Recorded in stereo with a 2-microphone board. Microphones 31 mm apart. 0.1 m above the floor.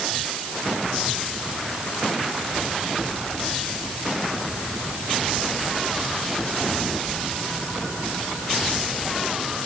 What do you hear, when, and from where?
Only background noise.